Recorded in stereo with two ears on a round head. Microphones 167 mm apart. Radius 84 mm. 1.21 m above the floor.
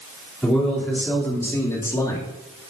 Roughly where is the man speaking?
Centre.